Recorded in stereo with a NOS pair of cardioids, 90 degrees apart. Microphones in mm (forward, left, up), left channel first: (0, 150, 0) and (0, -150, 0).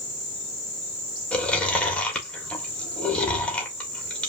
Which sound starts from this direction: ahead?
Chewing, at 1.3 s.